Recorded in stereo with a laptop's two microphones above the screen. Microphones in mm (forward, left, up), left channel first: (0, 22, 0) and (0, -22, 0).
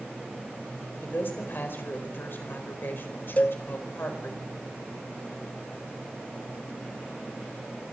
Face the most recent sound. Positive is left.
turn(degrees=40)  # may be behind; listen again after turning